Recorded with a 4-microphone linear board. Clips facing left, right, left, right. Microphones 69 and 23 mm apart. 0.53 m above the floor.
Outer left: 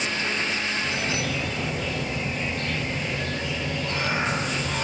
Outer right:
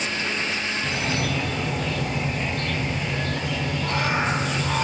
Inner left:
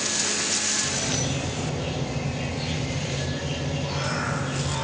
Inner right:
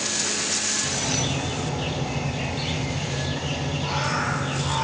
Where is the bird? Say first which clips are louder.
Outer right 2 dB, inner right 1 dB; 70° right (ahead or behind), 1.3 m.